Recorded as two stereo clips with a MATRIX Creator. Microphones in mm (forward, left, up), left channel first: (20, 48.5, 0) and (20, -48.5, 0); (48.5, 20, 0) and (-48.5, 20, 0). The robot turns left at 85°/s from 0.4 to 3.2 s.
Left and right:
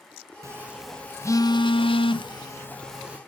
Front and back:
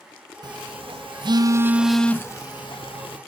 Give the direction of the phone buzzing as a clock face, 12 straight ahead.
5 o'clock.